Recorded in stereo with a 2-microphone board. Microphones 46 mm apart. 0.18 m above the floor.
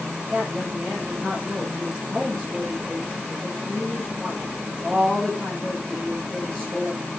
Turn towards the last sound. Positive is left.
turn(degrees=10)  # may be behind; listen again after turning